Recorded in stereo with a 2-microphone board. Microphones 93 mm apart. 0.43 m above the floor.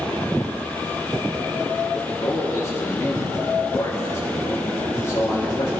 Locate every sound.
1.9 s a man speaking: 30° left (ahead or behind), 5.5 m